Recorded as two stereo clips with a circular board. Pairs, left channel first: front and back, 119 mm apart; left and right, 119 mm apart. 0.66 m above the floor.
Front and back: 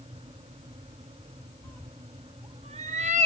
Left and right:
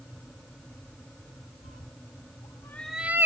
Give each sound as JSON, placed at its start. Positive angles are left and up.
{"t": 1.6, "sound": "a cat meowing", "azimuth_deg": 70}